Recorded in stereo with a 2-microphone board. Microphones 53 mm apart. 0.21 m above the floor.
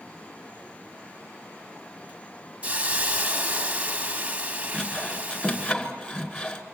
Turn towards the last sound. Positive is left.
turn(degrees=25)  # may be behind; listen again after turning